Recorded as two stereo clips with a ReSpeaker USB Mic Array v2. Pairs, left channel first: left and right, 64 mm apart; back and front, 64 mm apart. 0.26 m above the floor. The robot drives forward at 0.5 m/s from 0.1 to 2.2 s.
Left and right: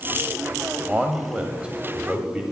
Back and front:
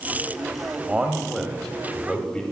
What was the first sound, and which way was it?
A man speaking, 40° right.